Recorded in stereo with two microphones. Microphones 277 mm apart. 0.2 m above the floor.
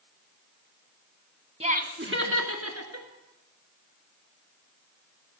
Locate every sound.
1.6 s laughter: 25° right (ahead or behind), 1.5 m; by 3.1 s 65° right (ahead or behind), 3 m